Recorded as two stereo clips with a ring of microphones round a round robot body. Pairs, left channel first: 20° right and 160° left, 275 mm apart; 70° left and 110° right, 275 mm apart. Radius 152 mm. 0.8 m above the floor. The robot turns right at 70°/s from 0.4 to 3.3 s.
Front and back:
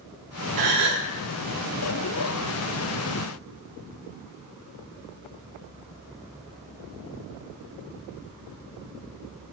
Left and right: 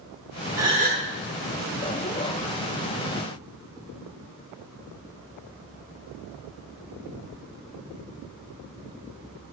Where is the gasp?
170° left, 0.7 m; by 1.1 s 160° right, 0.7 m.